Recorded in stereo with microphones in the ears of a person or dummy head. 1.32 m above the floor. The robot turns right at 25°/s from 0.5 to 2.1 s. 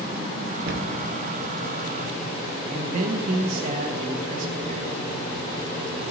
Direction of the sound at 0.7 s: 75° right (ahead or behind).